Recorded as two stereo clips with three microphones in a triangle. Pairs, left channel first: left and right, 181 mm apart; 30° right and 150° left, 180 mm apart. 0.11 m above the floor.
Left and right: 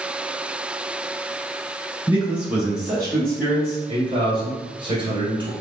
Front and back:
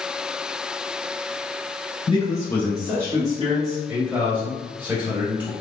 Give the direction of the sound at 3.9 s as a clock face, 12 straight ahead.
4 o'clock.